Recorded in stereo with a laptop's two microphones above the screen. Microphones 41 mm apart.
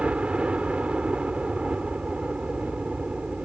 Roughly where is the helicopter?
Right.